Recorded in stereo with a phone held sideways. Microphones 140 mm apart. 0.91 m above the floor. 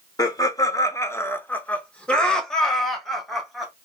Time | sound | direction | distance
0.2 | laughter | 25° left (ahead or behind) | 0.6 m